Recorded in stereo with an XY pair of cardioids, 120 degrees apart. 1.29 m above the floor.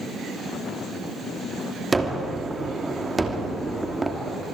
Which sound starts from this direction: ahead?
A gunshot, at 1.9 s.